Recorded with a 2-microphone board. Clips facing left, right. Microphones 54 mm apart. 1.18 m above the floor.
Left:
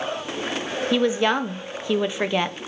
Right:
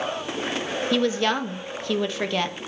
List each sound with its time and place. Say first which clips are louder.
0.9 s a woman speaking: left 2 dB; 15° left (ahead or behind), 0.6 m